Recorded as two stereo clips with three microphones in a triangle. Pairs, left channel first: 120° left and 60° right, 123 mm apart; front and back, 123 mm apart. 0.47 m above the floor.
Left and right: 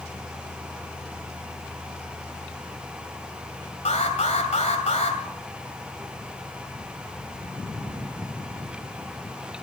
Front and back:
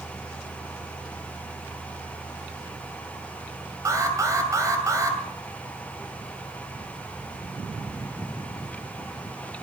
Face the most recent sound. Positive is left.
turn(degrees=120)